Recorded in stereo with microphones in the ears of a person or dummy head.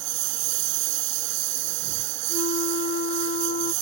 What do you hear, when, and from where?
0.0 s a lawn mower: 70° right (ahead or behind)
2.3 s a flute: 50° left (ahead or behind)